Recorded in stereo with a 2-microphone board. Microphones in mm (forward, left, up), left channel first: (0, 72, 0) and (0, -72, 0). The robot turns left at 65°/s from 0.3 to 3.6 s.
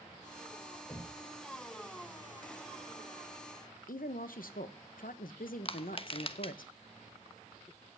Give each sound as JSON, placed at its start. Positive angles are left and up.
{"t": 0.9, "sound": "knocking", "side_deg": 20, "distance_m": 4.5}
{"t": 3.9, "sound": "a woman speaking", "side_deg": 80, "distance_m": 1.2}
{"t": 5.7, "sound": "crushing", "side_deg": 40, "distance_m": 1.0}